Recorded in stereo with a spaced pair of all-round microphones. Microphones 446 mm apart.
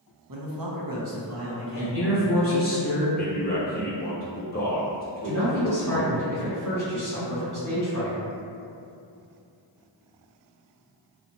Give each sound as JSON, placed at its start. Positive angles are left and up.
{"t": 0.3, "sound": "a man speaking", "side_deg": -50, "distance_m": 0.6}
{"t": 1.8, "sound": "a man speaking", "side_deg": 30, "distance_m": 1.0}
{"t": 3.2, "sound": "a man speaking", "side_deg": 20, "distance_m": 0.7}
{"t": 5.2, "sound": "a man speaking", "side_deg": -45, "distance_m": 1.3}